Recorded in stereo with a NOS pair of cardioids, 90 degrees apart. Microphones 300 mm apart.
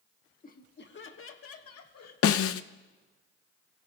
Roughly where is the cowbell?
No cowbell in this recording.